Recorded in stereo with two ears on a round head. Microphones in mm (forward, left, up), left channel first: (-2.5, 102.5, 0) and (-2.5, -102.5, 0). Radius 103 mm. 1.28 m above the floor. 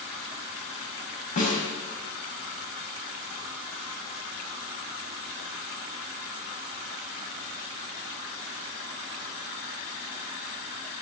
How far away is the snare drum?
About 4.5 m.